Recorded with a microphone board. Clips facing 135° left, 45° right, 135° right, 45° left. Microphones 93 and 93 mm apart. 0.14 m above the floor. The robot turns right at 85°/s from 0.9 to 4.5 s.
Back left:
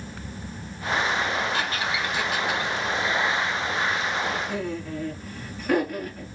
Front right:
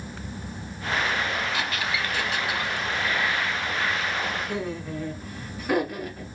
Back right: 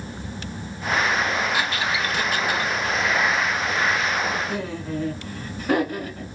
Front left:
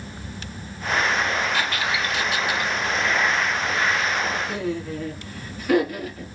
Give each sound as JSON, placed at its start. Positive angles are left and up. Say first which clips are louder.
{"t": 1.5, "sound": "a squeak", "louder": "back left 1 dB, even", "azimuth_deg": 155, "distance_m": 0.8}
{"t": 4.5, "sound": "laughter", "louder": "back left 1 dB, front left 1 dB", "azimuth_deg": -125, "distance_m": 1.2}